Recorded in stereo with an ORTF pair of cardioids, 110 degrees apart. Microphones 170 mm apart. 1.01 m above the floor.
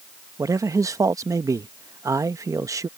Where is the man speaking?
20° right.